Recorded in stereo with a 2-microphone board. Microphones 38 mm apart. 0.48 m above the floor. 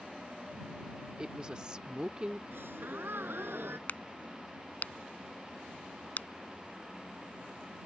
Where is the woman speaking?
25° right (ahead or behind).